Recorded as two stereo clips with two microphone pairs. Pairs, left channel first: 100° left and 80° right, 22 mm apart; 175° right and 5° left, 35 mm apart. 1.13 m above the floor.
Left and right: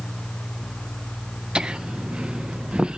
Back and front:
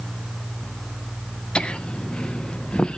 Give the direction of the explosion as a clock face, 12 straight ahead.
I don't hear an explosion.